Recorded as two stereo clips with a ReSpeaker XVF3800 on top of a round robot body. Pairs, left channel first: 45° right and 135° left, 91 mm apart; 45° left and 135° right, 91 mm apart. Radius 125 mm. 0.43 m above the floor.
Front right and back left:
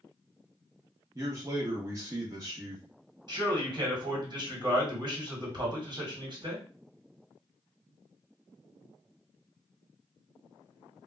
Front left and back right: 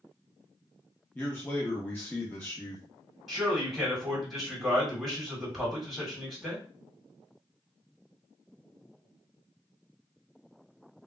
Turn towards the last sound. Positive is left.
turn(degrees=135)